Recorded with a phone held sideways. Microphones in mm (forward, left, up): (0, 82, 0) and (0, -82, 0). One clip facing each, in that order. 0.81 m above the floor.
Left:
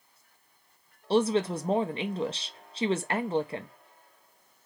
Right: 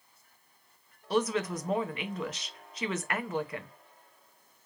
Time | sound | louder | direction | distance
1.1 | a woman speaking | left 4 dB | 30° left (ahead or behind) | 0.5 m